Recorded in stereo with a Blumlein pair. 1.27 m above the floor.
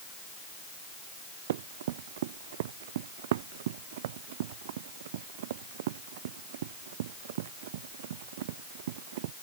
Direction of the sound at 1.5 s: 55° right.